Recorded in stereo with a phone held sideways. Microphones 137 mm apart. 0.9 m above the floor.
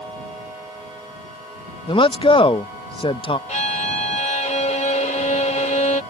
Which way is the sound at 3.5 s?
60° left (ahead or behind).